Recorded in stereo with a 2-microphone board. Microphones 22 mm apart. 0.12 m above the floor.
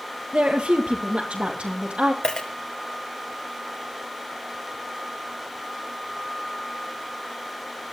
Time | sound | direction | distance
0.3 | a woman speaking | 60° right (ahead or behind) | 2.5 m
2.2 | a dropped coin | 45° left (ahead or behind) | 2 m